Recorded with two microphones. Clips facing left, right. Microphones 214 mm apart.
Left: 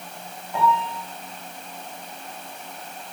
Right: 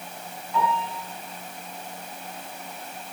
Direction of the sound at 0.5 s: 55° left (ahead or behind).